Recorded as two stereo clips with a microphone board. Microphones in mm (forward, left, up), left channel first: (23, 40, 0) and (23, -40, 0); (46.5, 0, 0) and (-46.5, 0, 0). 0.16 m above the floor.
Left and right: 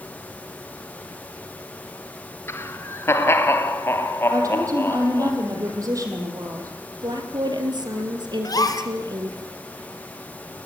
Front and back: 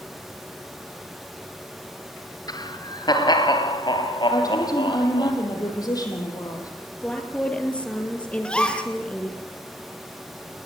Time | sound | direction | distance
2.5 | laughter | 35° left | 2.5 m
4.3 | a woman speaking | 45° right | 6.5 m
7.0 | a woman speaking | 75° right | 4 m
8.4 | a gasp | 75° left | 1.9 m